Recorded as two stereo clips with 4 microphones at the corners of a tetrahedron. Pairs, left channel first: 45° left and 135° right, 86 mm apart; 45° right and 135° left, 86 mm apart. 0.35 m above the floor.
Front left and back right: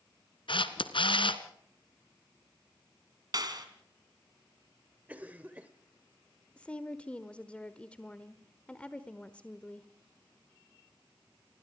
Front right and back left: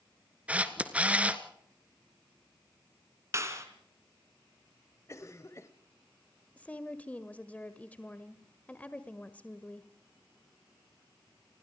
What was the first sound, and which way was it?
A camera shutter, 60° left.